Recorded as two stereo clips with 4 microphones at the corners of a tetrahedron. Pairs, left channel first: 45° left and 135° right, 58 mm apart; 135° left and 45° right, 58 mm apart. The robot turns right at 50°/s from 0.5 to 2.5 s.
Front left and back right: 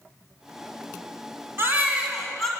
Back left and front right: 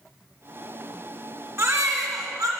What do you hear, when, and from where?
1.6 s a baby crying: 85° right, 2.5 m; by 2.5 s 40° right, 2.5 m